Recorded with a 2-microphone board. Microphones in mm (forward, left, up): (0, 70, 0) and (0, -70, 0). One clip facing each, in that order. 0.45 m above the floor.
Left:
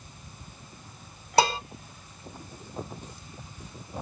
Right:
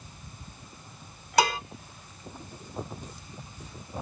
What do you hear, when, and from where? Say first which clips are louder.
1.4 s dishes clattering: left 1 dB; 30° left (ahead or behind), 1.7 m